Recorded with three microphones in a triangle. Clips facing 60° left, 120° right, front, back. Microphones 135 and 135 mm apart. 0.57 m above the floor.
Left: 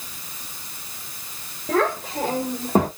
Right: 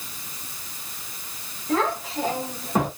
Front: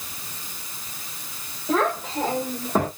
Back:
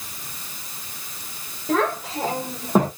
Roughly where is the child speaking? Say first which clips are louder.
Left 2 dB, even; left.